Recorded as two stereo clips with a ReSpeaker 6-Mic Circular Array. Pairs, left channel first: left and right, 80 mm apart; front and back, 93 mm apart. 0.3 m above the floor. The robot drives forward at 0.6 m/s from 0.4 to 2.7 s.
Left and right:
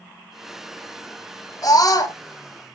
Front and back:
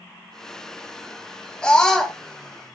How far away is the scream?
About 2 m.